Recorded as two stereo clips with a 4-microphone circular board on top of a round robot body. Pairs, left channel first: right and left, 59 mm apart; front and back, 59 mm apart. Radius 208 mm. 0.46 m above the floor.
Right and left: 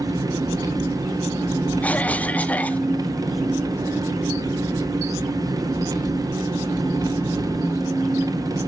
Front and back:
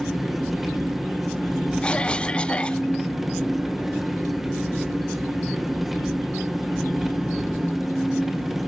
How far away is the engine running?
About 1.3 m.